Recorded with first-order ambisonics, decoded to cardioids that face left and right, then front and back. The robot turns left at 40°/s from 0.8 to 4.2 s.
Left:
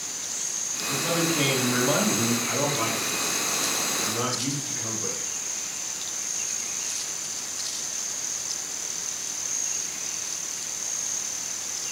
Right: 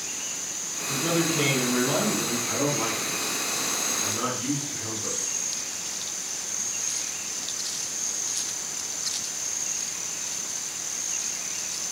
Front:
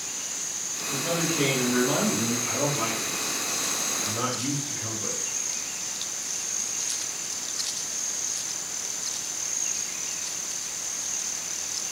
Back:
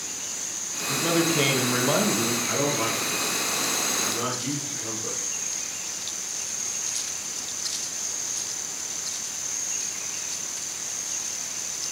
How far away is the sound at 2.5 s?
About 1.6 m.